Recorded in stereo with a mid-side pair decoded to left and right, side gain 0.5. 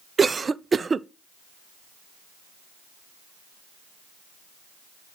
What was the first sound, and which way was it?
A cough, 30° right.